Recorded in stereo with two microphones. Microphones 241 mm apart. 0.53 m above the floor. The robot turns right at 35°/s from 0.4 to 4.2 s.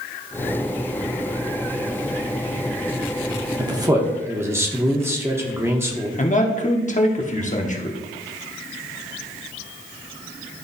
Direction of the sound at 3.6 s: 20° right (ahead or behind).